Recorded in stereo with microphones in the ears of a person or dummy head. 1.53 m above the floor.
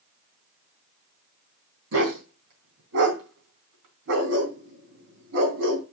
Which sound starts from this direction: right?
A dog barking, at 1.9 s.